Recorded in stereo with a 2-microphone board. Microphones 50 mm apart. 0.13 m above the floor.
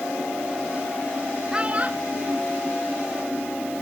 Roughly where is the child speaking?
Centre.